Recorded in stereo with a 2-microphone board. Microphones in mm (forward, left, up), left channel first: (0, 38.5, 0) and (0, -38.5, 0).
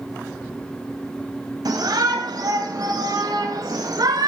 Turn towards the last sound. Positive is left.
turn(degrees=-65)  # may be behind; listen again after turning